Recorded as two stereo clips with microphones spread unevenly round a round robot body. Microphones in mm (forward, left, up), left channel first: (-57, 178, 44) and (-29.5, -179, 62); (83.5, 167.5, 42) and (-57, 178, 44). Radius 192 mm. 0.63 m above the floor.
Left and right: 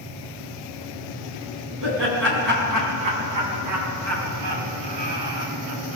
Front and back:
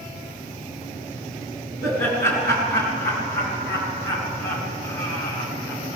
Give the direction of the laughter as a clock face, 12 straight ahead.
1 o'clock.